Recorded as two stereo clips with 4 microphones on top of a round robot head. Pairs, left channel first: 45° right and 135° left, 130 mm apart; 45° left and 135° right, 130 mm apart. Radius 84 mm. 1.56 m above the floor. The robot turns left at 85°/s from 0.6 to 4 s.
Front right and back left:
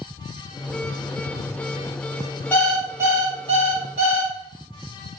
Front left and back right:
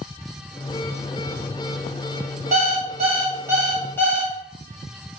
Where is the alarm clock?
120° right, 0.8 m; by 4.3 s 115° left, 0.8 m.